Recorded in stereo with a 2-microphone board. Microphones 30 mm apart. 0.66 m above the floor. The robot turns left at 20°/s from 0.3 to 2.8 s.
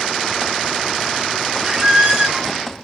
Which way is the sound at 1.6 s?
25° right (ahead or behind).